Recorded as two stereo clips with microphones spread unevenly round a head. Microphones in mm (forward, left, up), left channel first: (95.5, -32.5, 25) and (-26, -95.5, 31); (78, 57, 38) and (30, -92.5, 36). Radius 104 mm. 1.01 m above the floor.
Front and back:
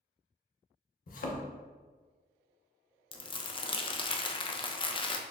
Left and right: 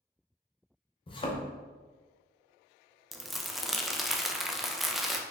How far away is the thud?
About 0.7 m.